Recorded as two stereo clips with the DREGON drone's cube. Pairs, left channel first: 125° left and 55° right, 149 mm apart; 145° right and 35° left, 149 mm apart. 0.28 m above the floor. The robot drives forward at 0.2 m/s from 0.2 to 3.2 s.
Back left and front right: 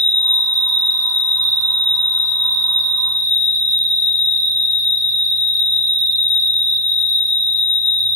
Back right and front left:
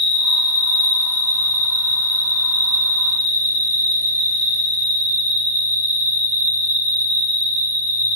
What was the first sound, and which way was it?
An insect, 160° left.